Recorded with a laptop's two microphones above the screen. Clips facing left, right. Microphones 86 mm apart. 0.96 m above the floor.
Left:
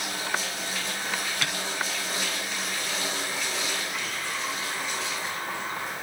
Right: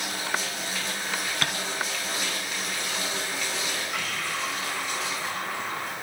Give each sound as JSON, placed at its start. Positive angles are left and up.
{"t": 1.4, "sound": "tapping", "side_deg": -50, "distance_m": 3.0}
{"t": 3.9, "sound": "breathing", "side_deg": -75, "distance_m": 3.0}